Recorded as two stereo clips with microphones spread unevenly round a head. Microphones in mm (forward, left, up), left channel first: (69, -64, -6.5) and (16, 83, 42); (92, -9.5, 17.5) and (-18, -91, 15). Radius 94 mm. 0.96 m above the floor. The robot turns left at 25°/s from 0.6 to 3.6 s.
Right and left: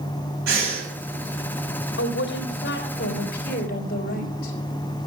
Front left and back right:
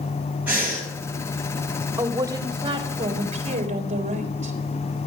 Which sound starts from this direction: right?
A woman speaking, at 2.0 s.